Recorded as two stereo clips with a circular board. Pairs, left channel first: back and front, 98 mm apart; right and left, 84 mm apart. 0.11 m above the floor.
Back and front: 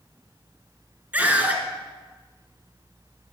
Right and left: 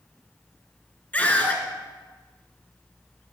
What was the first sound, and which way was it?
A scream, 45° right.